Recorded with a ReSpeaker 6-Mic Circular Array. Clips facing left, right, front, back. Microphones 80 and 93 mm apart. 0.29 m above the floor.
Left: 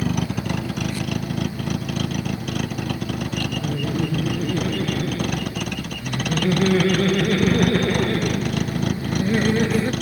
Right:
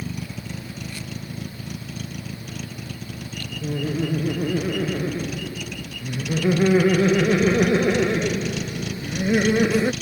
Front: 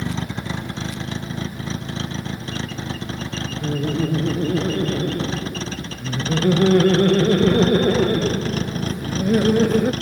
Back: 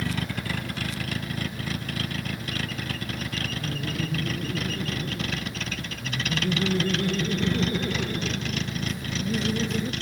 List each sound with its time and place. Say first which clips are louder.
0.0 s a vehicle: left 9 dB, front 3 dB; 65° left; by 10.0 s 50° left
3.6 s laughter: right 4 dB, front 13 dB; 15° right